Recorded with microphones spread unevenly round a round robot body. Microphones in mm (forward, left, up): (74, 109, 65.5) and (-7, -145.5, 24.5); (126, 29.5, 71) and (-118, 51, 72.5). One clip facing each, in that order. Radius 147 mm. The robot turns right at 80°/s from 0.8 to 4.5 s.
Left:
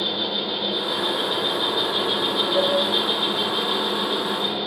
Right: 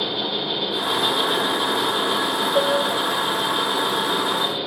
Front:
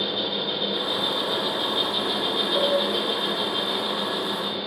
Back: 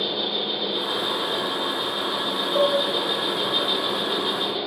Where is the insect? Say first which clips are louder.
Right 1 dB, back 1 dB; 110° right, 4 m; by 4.7 s 175° right, 4 m.